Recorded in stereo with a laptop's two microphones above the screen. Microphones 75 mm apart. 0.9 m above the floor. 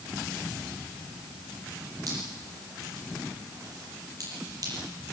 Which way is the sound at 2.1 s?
50° right (ahead or behind).